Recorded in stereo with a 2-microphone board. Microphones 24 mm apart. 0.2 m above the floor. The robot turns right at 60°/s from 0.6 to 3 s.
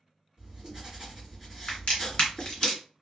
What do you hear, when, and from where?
0.4 s writing: 65° right, 1.6 m; by 2.7 s 60° left, 1.6 m
1.7 s a crack: 45° left (ahead or behind), 1.7 m; by 2.8 s 30° left (ahead or behind), 1.7 m